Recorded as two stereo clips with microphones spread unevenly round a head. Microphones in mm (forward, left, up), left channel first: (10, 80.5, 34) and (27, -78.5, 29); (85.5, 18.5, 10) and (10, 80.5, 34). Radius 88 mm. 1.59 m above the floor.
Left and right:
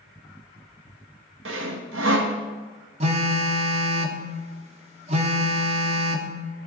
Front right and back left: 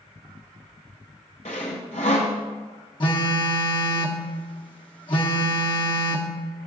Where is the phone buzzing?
80° right, 0.8 m.